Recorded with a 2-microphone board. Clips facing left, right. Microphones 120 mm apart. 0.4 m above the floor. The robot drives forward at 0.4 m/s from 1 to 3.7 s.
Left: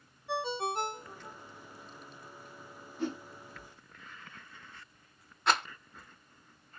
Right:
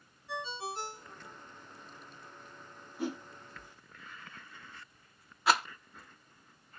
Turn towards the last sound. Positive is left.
turn(degrees=-5)  # may be behind; listen again after turning